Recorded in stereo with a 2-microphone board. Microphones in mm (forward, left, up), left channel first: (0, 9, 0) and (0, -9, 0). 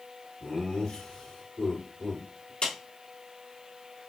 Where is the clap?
75° left (ahead or behind), 2.5 m.